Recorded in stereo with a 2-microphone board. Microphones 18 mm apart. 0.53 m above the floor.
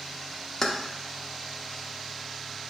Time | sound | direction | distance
0.6 | keys jangling | 25° left (ahead or behind) | 0.6 m